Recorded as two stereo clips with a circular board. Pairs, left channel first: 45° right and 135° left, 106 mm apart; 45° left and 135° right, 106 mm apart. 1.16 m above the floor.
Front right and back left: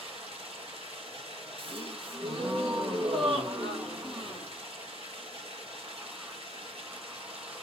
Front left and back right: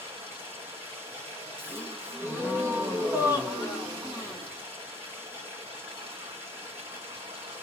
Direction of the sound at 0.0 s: 155° left.